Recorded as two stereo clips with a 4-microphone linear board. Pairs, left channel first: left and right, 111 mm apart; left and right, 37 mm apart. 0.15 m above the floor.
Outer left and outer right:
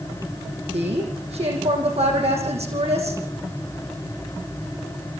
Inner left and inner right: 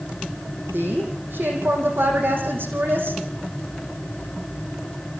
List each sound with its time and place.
0.7 s a woman speaking: 70° right (ahead or behind), 6.5 m